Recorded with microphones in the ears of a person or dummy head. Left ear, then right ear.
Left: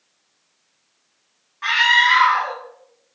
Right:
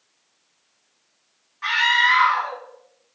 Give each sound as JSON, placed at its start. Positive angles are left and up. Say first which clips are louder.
{"t": 1.6, "sound": "a scream", "louder": "left 3 dB", "side_deg": 15, "distance_m": 9.5}